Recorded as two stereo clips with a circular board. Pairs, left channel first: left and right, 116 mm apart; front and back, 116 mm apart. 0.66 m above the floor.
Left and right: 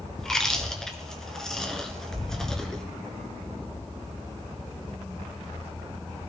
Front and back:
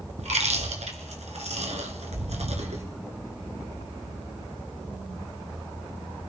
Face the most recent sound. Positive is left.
turn(degrees=175)